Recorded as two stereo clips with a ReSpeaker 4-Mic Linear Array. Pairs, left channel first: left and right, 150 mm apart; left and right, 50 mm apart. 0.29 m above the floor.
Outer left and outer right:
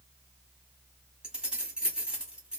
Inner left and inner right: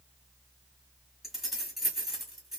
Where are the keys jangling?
5° right (ahead or behind), 1.4 m.